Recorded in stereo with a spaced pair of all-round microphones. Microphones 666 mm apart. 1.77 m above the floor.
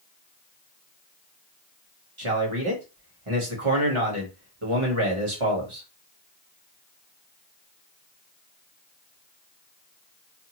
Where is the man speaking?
45° right (ahead or behind), 1.3 m.